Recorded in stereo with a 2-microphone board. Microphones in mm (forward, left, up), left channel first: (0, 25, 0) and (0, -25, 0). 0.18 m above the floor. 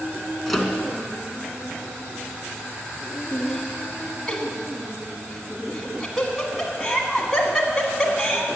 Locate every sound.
0.5 s a microwave: 5° left (ahead or behind), 1.7 m
3.3 s laughter: 10° left (ahead or behind), 1.2 m